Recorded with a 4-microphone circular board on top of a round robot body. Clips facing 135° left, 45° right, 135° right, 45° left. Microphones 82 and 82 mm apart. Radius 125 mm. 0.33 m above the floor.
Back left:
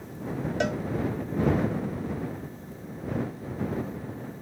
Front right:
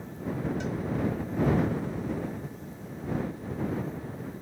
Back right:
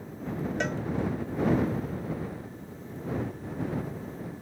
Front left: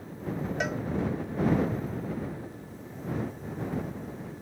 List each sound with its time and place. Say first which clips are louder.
0.6 s a cowbell: back left 6 dB, even; 130° left